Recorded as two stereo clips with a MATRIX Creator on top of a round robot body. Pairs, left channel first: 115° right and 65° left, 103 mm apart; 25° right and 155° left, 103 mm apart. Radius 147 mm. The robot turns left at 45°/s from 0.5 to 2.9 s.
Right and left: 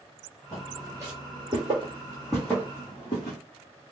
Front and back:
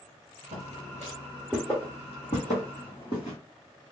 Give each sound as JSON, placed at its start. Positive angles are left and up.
{"t": 0.5, "sound": "footsteps", "azimuth_deg": 165, "distance_m": 1.2}